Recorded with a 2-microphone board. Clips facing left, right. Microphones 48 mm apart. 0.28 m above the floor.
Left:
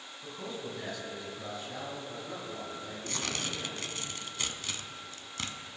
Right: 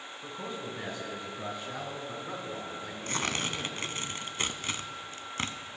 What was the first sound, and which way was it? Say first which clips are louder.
A man speaking: right 1 dB; 20° right (ahead or behind).